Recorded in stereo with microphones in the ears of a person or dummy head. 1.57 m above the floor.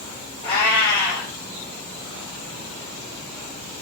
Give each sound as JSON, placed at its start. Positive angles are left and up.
{"t": 0.4, "sound": "a cat meowing", "side_deg": 45, "distance_m": 1.6}